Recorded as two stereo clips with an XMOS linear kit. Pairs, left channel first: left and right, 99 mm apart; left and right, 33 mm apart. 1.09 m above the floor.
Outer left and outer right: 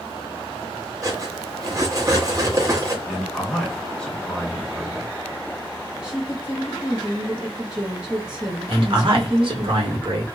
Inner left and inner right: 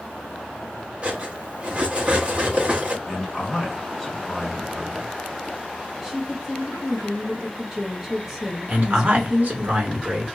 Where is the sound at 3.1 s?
10° left (ahead or behind), 1.2 m.